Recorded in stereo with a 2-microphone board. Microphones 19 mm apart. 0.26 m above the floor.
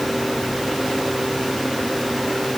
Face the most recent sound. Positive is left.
No sound to turn to.